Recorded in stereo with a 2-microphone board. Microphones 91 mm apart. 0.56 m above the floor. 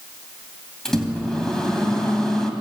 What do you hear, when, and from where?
0.8 s a microwave: 5° left (ahead or behind), 2.5 m